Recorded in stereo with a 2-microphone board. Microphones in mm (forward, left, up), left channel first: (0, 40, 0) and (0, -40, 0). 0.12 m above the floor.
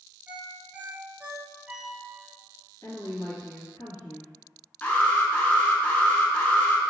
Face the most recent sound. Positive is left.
turn(degrees=20)  # may be behind; listen again after turning